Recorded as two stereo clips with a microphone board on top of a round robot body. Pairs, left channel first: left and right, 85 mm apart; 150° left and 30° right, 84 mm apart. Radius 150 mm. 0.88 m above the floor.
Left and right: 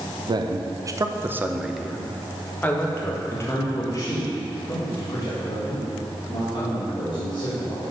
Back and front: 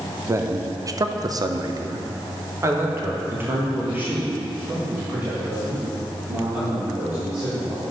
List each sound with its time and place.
0.3 s a man speaking: 80° right, 1.0 m; by 7.8 s 50° left, 3.5 m